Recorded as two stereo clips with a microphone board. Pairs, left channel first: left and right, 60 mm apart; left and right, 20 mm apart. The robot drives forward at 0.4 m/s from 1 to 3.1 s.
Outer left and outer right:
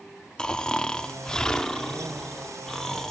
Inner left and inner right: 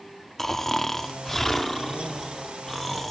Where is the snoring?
10° left (ahead or behind), 0.8 m; by 3.1 s 5° left (ahead or behind), 1.5 m.